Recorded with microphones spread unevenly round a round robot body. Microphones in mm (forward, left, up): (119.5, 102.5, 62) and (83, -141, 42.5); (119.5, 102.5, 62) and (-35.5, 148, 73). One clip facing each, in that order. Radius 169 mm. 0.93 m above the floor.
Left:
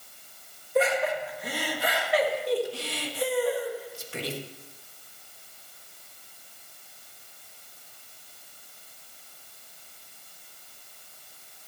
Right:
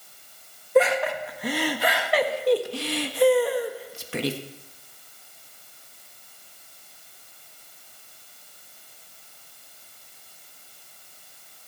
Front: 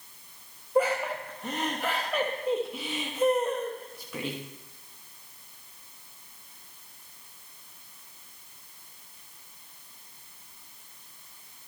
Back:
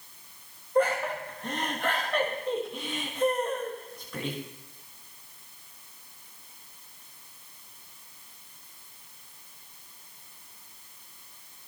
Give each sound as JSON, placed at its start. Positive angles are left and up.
{"t": 0.8, "sound": "laughter", "azimuth_deg": -100, "distance_m": 1.5}